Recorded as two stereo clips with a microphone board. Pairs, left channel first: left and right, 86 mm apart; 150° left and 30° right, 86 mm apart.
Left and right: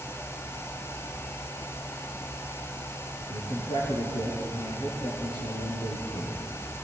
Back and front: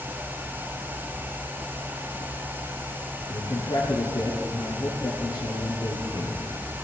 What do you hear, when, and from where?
3.3 s a man speaking: 105° left, 5 m